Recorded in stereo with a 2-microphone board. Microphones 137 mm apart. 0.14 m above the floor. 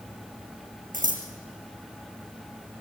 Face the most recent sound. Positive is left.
turn(degrees=-70)  # may be behind; listen again after turning